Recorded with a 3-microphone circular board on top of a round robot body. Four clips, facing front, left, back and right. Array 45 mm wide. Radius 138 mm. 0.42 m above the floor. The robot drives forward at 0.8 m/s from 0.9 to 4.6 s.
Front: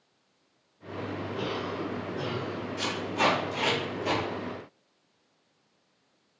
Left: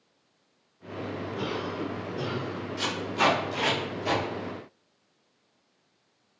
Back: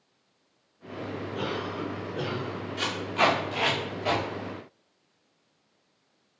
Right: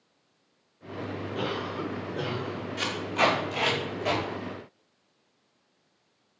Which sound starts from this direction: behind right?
Tape being pulled, at 2.8 s.